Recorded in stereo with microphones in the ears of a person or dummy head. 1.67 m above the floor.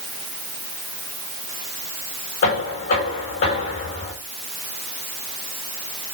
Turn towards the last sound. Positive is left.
turn(degrees=45)  # may be behind; listen again after turning